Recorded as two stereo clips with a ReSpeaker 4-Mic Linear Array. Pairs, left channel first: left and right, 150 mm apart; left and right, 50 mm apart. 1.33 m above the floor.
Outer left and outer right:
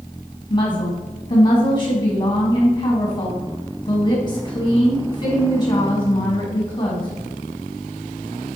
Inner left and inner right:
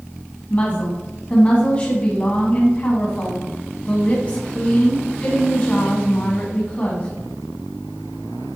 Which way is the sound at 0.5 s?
40° left (ahead or behind).